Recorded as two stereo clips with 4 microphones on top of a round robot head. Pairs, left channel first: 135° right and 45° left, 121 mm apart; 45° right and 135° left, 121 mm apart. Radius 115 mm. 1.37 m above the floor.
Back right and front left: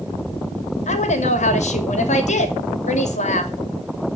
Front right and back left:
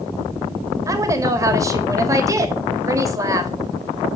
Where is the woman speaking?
160° right, 2.5 m.